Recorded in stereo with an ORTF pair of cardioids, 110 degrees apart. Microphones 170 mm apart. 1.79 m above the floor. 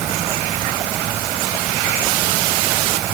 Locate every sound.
Only background noise.